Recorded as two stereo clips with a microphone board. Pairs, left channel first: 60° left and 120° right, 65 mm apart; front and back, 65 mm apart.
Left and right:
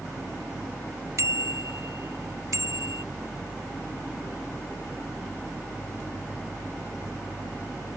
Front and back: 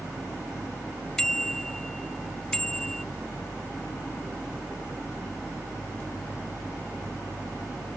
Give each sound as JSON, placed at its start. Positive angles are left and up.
{"t": 1.2, "sound": "a bicycle bell", "azimuth_deg": -85}